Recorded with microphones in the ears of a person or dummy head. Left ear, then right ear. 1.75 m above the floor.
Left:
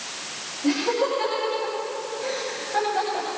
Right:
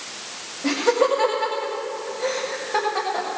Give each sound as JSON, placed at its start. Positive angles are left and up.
{"t": 0.6, "sound": "laughter", "side_deg": -75, "distance_m": 2.0}